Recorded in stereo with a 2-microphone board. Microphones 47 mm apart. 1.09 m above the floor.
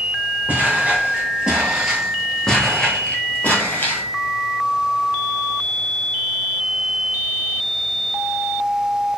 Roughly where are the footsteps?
Right.